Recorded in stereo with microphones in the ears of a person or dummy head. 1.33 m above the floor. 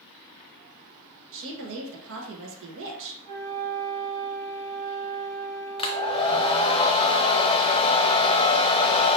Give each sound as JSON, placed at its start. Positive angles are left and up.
{"t": 1.3, "sound": "a woman speaking", "side_deg": -70, "distance_m": 1.4}
{"t": 3.2, "sound": "a flute", "side_deg": -85, "distance_m": 2.5}
{"t": 5.8, "sound": "a hair dryer", "side_deg": 30, "distance_m": 0.5}